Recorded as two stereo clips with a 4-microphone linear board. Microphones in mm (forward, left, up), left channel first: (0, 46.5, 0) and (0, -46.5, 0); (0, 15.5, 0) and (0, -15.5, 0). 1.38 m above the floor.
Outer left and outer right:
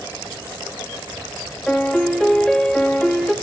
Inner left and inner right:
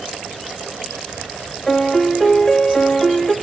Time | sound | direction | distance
1.7 | a piano | 10° left (ahead or behind) | 0.7 m